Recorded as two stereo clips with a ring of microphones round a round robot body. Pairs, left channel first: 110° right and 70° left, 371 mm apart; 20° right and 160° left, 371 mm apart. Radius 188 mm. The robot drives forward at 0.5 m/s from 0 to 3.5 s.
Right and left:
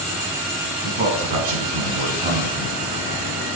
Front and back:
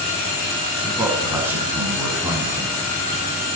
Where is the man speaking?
70° left, 6 m; by 2.8 s 80° left, 6 m.